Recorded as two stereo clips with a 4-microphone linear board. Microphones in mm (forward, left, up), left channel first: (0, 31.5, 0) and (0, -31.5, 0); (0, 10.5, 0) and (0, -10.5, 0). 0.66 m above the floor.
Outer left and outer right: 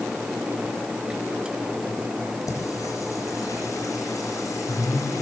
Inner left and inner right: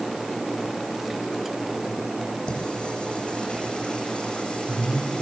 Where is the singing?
60° left (ahead or behind), 9 m.